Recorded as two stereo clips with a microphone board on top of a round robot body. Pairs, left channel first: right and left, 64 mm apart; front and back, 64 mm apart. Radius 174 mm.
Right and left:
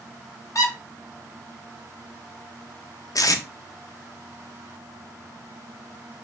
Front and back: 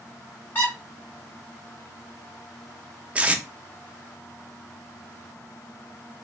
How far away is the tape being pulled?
About 0.5 m.